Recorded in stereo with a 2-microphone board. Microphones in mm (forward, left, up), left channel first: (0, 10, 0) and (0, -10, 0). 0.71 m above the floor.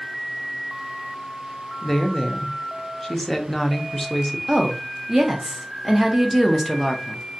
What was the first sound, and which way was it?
A woman speaking, 15° left (ahead or behind).